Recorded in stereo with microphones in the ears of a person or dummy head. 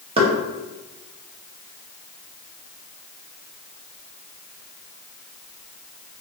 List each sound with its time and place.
0.2 s knocking: 35° right (ahead or behind), 1.8 m